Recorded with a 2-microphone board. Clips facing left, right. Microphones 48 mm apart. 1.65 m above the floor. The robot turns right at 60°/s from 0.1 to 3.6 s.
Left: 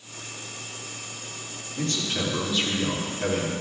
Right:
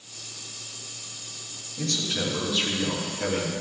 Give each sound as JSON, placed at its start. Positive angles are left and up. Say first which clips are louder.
{"t": 1.8, "sound": "a man speaking", "louder": "left 1 dB", "azimuth_deg": 130, "distance_m": 4.5}